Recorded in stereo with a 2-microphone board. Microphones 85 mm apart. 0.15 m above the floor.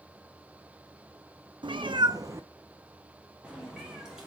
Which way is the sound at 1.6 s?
70° right (ahead or behind).